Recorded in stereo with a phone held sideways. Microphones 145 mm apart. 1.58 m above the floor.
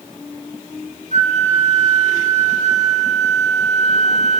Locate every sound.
1.1 s a flute: 60° right (ahead or behind), 6 m